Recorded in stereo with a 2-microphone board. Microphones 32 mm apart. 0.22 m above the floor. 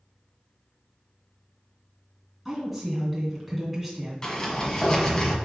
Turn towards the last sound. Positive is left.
turn(degrees=30)  # may be behind; listen again after turning